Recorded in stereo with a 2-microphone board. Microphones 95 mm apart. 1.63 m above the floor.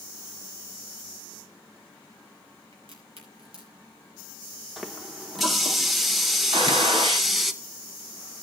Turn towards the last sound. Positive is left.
turn(degrees=-70)  # may be behind; listen again after turning